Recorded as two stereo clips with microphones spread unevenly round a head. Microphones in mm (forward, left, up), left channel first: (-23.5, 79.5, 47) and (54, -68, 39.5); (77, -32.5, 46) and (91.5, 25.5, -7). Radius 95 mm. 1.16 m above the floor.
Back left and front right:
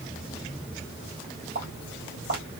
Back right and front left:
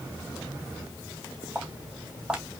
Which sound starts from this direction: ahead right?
Footsteps, at 1.6 s.